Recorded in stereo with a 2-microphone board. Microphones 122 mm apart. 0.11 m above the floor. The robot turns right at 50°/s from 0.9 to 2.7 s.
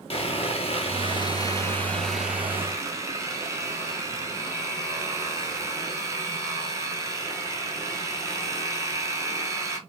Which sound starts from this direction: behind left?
Sawing, at 0.1 s.